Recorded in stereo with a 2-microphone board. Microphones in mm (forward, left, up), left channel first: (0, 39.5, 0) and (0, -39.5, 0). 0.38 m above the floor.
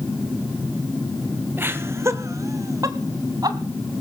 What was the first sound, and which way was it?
Laughter, 25° right (ahead or behind).